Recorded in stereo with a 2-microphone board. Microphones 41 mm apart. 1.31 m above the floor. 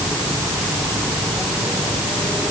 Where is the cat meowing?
I don't hear a cat meowing.